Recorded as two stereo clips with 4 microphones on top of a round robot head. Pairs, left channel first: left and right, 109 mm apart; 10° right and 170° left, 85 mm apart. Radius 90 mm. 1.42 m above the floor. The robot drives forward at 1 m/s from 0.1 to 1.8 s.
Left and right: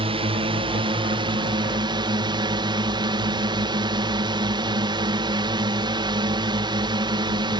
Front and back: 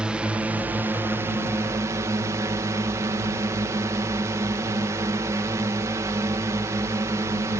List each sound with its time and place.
0.0 s a drone: 115° right; by 7.6 s 135° right